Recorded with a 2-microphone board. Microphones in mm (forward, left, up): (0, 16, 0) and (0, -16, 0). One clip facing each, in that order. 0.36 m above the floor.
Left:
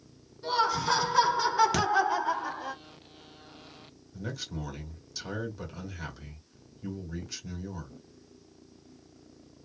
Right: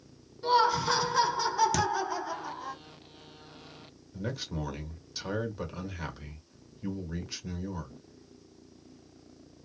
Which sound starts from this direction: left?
A thud, at 1.7 s.